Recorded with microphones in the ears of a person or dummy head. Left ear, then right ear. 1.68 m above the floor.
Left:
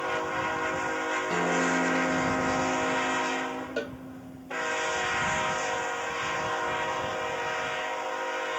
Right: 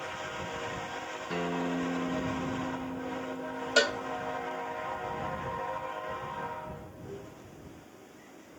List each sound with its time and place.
1.3 s a guitar: 10° left (ahead or behind)
3.8 s a cowbell: 45° right (ahead or behind)